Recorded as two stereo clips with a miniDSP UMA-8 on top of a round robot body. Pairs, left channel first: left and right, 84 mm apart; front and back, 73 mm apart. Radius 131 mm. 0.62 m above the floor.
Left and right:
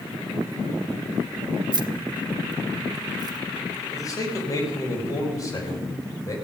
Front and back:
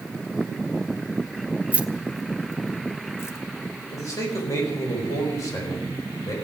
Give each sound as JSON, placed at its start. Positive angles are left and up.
{"t": 1.7, "sound": "keys jangling", "azimuth_deg": -115, "distance_m": 1.0}
{"t": 3.9, "sound": "a man speaking", "azimuth_deg": 45, "distance_m": 4.5}